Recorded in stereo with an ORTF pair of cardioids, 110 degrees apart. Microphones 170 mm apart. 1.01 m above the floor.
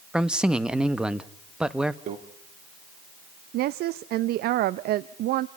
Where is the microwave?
50° right, 2.5 m.